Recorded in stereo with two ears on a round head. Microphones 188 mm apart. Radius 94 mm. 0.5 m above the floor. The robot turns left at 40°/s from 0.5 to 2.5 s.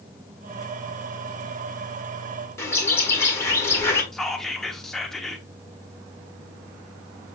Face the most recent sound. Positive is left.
turn(degrees=0)  # may be behind; listen again after turning